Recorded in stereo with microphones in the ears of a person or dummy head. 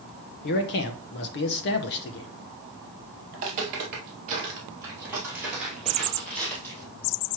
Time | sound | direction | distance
0.4 | a man speaking | 55° left (ahead or behind) | 0.8 m
3.3 | footsteps | 35° right (ahead or behind) | 1.7 m